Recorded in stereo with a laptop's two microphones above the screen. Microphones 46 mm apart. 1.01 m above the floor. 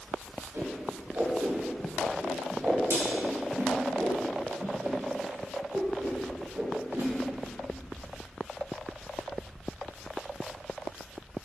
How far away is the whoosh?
About 2 m.